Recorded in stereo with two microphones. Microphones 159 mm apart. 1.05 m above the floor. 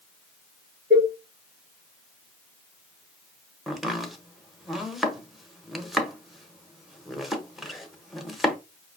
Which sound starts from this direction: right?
A cowbell, at 0.9 s.